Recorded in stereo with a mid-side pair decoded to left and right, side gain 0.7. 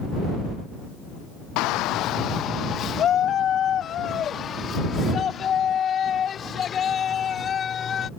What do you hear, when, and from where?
1.6 s a shout: 65° left; by 8.1 s 35° left